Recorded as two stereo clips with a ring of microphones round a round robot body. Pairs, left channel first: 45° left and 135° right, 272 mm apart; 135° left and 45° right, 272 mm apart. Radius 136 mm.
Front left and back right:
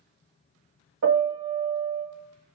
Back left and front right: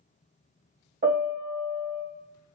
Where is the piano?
100° right, 1.5 m.